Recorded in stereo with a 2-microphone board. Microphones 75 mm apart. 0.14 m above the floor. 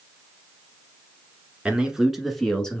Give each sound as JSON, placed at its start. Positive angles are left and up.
{"t": 1.6, "sound": "a man speaking", "side_deg": -10, "distance_m": 1.5}